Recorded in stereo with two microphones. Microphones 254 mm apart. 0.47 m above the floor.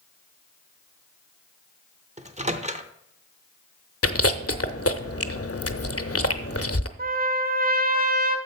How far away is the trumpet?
About 1.0 m.